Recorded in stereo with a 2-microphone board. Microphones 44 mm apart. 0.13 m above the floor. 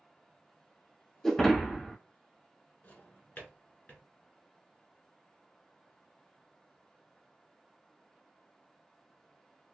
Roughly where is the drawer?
Left.